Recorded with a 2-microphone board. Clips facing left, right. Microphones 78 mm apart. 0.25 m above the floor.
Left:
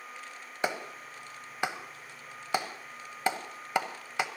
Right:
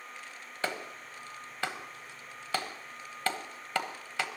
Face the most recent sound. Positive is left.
turn(degrees=20)  # may be behind; listen again after turning